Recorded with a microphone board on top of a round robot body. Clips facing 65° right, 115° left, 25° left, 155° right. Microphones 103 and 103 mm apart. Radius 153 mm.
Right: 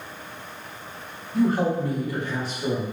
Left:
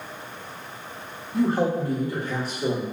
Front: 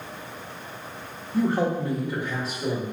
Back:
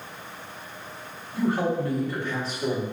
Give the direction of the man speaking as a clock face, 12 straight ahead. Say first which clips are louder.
Even, front 1 dB; 10 o'clock.